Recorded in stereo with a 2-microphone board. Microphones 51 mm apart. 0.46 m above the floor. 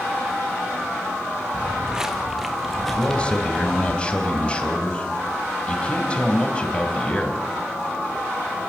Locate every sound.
1.5 s footsteps: 20° right (ahead or behind), 1.4 m; by 4.0 s 15° left (ahead or behind), 2 m
3.0 s a man speaking: 20° left (ahead or behind), 3 m